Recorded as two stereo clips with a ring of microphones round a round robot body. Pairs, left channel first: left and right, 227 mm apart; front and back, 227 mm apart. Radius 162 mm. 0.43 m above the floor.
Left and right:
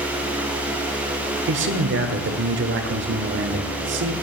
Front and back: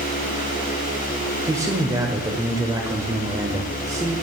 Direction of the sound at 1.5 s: 105° right.